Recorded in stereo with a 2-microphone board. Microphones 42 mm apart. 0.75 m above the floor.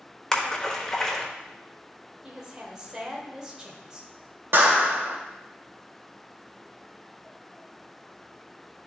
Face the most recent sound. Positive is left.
turn(degrees=-80)